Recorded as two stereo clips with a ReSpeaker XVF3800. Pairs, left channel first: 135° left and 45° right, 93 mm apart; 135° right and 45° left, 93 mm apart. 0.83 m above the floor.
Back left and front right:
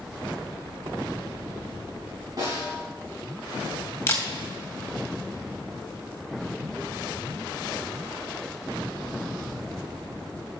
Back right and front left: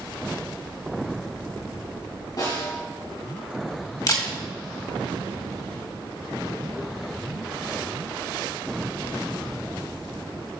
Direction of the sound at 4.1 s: 165° right.